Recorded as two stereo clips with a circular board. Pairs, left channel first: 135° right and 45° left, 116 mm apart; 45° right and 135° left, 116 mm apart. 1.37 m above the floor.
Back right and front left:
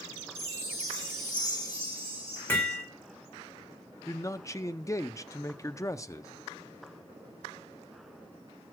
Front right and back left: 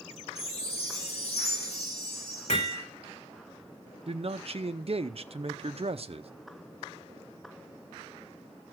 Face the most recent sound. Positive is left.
turn(degrees=160)